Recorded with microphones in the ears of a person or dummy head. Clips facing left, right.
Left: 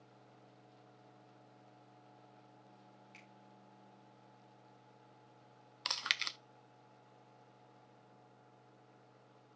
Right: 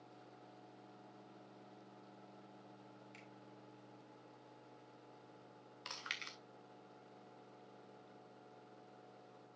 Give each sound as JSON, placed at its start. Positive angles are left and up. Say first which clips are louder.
{"t": 3.1, "sound": "a finger snap", "louder": "right 3 dB", "side_deg": -5, "distance_m": 3.5}
{"t": 5.8, "sound": "chewing", "louder": "left 7 dB", "side_deg": 60, "distance_m": 0.5}